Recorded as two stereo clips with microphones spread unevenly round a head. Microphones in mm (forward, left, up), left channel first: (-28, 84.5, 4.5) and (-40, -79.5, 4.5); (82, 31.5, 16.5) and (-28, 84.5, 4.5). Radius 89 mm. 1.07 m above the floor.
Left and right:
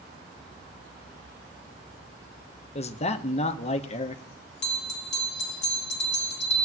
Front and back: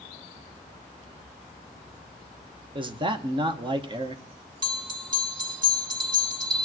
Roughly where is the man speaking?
Behind left.